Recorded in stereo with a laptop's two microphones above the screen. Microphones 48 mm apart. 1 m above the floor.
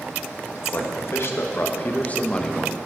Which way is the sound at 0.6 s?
70° left (ahead or behind).